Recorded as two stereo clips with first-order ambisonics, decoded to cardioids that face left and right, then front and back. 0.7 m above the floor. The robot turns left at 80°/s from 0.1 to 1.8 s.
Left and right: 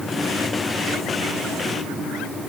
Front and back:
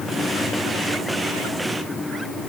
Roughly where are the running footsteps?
I don't hear running footsteps.